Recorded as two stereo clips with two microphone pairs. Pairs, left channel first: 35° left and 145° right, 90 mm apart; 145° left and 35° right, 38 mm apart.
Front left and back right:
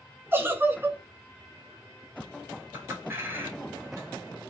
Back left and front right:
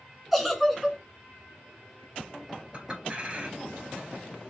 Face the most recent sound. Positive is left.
turn(degrees=-90)